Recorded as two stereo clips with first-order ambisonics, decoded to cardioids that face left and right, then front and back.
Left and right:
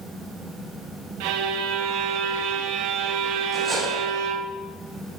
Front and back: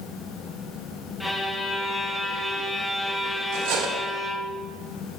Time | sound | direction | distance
1.2 | a violin | 85° right | 0.8 m
3.5 | cutlery clinking | 165° right | 3 m